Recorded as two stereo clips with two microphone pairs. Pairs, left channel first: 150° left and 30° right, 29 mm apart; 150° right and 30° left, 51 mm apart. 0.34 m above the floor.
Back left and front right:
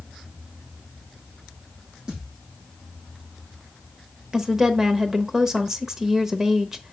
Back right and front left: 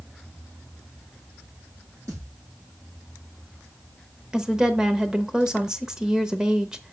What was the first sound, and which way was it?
A thud, 35° left.